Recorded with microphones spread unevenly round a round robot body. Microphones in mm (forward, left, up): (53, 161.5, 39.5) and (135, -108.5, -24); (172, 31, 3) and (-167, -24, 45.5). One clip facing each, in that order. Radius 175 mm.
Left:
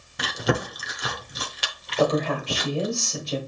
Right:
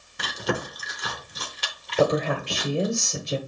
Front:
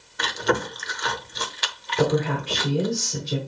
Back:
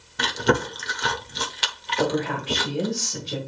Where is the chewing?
140° left, 1.0 m.